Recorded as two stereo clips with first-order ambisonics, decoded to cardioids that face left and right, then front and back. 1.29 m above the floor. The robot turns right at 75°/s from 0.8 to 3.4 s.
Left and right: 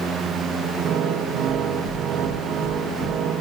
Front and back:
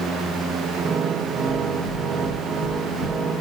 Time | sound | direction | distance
1.5 | knocking | 125° right | 7.5 m